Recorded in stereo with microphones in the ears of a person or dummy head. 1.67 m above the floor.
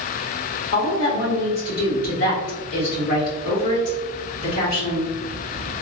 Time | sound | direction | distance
0.7 | a woman speaking | 40° left (ahead or behind) | 1.5 m